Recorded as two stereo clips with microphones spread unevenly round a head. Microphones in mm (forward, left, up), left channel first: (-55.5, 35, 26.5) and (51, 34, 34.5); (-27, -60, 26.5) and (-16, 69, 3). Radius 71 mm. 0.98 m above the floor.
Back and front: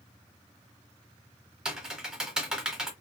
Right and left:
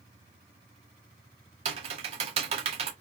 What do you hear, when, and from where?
1.6 s typing on a keyboard: 70° left, 0.9 m